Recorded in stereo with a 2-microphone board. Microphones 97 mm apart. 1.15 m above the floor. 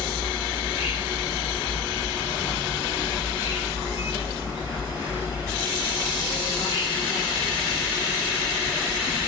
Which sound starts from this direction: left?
An insect, at 0.0 s.